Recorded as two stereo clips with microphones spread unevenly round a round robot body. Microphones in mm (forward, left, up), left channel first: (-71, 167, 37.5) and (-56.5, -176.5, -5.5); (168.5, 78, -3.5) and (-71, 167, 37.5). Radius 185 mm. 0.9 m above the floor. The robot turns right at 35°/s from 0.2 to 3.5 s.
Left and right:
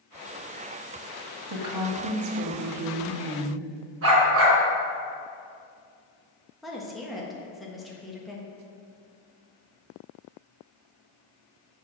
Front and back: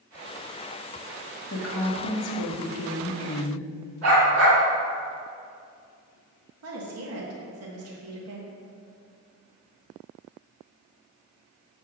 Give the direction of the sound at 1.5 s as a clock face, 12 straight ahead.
2 o'clock.